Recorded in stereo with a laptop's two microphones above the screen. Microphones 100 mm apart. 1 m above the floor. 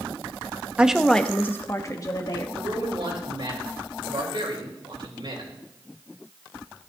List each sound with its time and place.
0.8 s a woman speaking: 10° right (ahead or behind), 0.7 m; by 2.5 s 40° left (ahead or behind), 1.6 m
2.5 s a man speaking: 60° right (ahead or behind), 4 m